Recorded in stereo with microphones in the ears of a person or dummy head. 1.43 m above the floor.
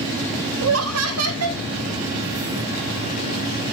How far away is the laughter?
About 0.5 m.